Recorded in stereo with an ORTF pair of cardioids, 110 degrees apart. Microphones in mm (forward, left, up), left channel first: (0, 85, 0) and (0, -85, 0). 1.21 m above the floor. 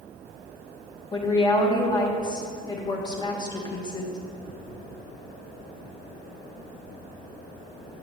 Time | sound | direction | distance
1.1 | a woman speaking | 25° left | 1.2 m